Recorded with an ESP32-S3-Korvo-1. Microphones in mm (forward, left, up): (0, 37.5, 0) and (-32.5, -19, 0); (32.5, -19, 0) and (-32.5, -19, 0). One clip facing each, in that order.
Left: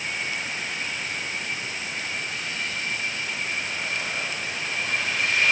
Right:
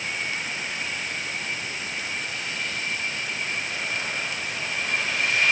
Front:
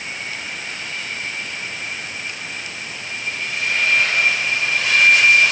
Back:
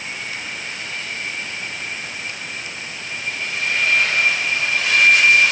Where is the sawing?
I don't hear sawing.